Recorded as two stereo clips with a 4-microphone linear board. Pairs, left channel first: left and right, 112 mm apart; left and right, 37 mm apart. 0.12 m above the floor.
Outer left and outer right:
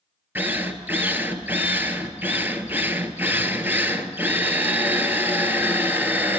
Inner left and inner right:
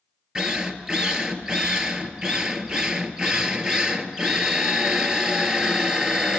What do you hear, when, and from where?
0.3 s a drill: 20° right (ahead or behind), 1.3 m